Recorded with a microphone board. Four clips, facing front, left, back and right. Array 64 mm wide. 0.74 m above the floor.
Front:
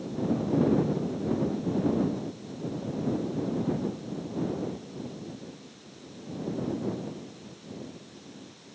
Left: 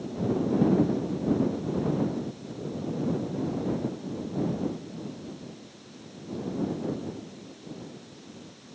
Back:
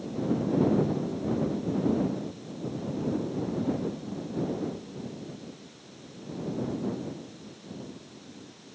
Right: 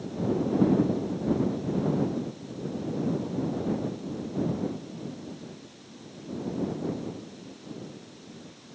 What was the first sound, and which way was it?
Only background noise.